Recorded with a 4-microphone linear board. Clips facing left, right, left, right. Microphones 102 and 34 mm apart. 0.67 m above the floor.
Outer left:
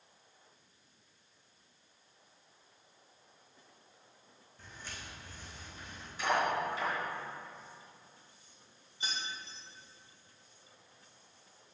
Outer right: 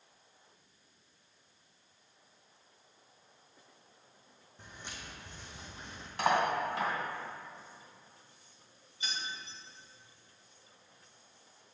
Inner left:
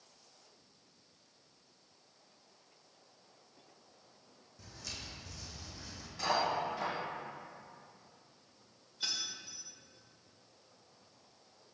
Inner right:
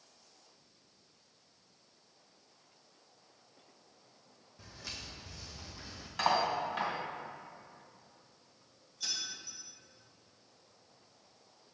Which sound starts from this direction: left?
Keys jangling, at 9.0 s.